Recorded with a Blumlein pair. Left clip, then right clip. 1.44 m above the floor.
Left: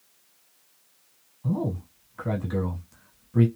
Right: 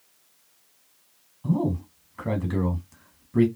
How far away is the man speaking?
About 1.0 m.